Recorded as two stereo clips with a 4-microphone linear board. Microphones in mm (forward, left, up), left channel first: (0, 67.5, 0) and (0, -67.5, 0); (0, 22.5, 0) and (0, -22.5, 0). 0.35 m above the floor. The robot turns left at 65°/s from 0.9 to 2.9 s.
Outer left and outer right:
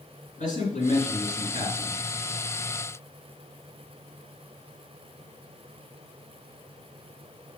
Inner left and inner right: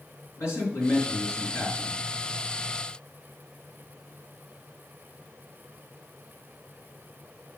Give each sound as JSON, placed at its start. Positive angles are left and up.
{"t": 0.4, "sound": "a man speaking", "azimuth_deg": 105, "distance_m": 4.0}